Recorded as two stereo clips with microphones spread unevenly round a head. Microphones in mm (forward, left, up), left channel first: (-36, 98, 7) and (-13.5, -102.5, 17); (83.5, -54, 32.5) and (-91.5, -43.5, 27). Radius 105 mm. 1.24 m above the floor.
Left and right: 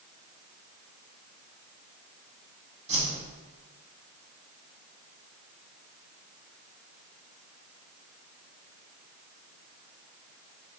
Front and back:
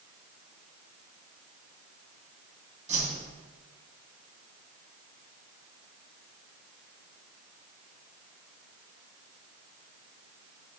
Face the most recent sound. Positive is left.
turn(degrees=-135)